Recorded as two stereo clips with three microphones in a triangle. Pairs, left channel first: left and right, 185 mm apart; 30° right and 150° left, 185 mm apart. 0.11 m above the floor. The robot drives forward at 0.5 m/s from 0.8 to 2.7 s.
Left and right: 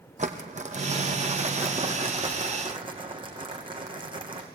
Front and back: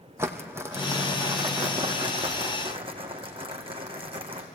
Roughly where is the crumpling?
Behind right.